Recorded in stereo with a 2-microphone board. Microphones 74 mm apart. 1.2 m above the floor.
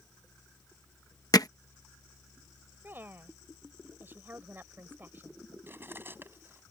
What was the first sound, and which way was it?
Hammering, 60° left (ahead or behind).